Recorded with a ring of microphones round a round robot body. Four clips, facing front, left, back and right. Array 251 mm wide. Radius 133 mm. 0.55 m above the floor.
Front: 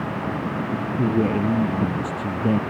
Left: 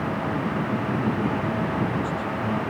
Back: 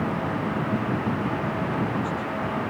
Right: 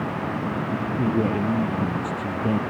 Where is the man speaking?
25° right; by 2.6 s 20° right.